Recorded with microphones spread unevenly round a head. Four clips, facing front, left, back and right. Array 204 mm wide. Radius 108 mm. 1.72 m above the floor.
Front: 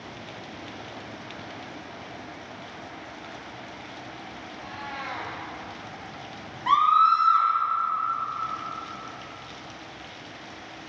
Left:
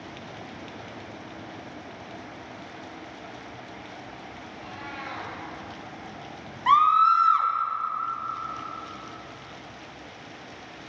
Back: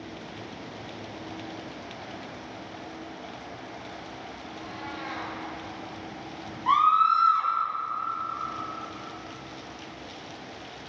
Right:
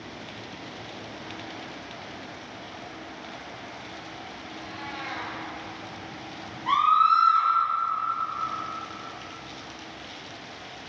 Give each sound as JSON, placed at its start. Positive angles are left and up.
{"t": 4.5, "sound": "a cat meowing", "azimuth_deg": 0, "distance_m": 3.5}
{"t": 6.7, "sound": "a scream", "azimuth_deg": 70, "distance_m": 1.9}